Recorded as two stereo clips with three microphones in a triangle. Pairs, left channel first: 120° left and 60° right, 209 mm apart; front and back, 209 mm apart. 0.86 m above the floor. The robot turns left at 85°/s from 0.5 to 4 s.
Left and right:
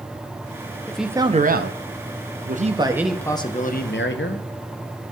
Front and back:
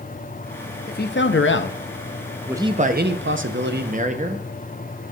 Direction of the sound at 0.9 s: 40° left.